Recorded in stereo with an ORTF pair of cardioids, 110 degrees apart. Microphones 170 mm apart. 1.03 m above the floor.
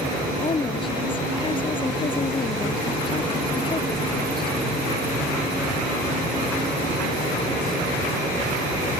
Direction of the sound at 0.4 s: 30° left.